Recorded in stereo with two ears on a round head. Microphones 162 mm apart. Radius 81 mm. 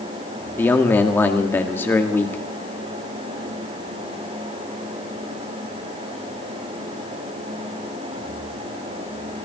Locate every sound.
0.6 s a man speaking: 10° left (ahead or behind), 2 m